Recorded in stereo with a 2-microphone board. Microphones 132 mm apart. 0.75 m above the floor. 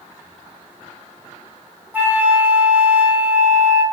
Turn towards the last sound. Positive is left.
turn(degrees=-15)  # may be behind; listen again after turning